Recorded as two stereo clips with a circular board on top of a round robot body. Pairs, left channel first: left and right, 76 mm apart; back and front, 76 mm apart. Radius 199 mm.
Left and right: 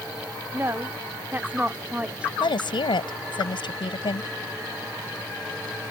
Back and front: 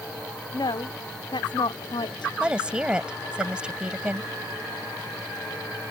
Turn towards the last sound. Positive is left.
turn(degrees=80)